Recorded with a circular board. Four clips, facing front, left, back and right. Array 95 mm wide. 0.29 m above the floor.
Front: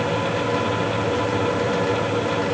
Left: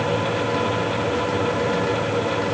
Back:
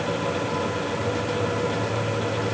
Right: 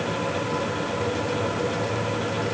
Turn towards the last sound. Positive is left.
No sound to turn to.